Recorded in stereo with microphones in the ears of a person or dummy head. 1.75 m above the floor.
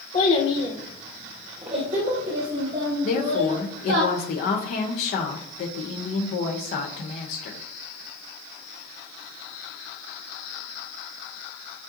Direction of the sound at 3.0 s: 45° left (ahead or behind).